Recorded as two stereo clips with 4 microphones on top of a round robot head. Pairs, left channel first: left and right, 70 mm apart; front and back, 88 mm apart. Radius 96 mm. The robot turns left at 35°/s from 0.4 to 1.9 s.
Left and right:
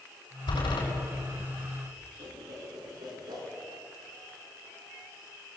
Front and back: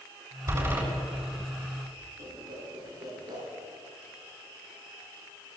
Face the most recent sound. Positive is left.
turn(degrees=-130)